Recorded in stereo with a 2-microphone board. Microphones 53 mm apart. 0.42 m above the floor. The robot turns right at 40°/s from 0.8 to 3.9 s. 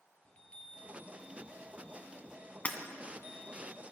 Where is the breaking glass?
25° left (ahead or behind), 1.7 m; by 2.8 s 30° left (ahead or behind), 1.7 m.